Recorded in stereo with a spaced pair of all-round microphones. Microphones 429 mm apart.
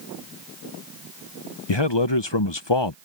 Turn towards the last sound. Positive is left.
turn(degrees=70)  # may be behind; listen again after turning